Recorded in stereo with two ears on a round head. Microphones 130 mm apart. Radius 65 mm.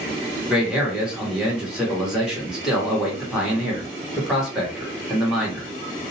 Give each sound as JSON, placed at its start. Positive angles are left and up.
{"t": 0.5, "sound": "a man speaking", "side_deg": -5, "distance_m": 1.2}